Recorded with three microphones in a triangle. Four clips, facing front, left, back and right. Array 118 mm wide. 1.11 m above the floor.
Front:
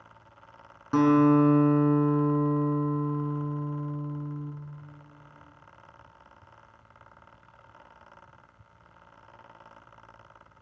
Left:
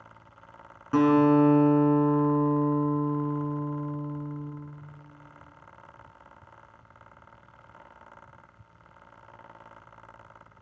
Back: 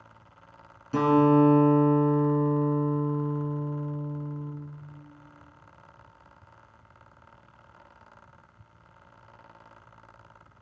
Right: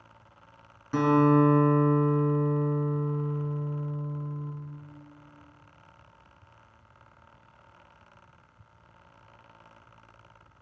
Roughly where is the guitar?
Ahead left.